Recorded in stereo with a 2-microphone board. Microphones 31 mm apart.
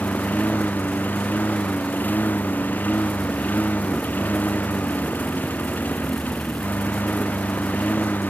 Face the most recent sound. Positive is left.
turn(degrees=85)